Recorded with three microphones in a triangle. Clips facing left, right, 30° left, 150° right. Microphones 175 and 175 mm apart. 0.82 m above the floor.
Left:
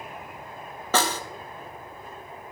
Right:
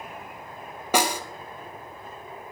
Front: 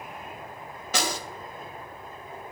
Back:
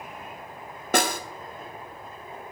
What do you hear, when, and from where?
0.9 s a snare drum: 165° right, 0.7 m